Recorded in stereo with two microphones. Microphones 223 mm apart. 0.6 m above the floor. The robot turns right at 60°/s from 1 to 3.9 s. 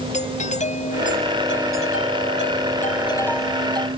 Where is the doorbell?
35° left; by 3.9 s 155° right.